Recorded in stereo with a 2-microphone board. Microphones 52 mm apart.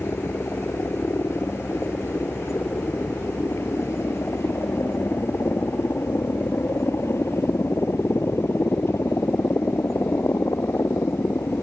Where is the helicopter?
60° left (ahead or behind); by 11.6 s 65° left (ahead or behind).